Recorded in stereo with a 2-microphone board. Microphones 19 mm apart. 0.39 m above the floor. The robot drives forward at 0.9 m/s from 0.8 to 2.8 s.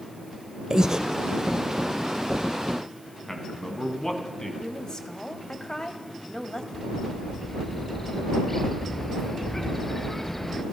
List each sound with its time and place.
0.7 s breathing: 35° right (ahead or behind), 1.3 m; by 1.0 s 40° right (ahead or behind), 1.2 m
3.3 s a man speaking: 25° left (ahead or behind), 4 m
4.6 s a woman speaking: 45° left (ahead or behind), 2.5 m
6.7 s a bird: 10° left (ahead or behind), 1.0 m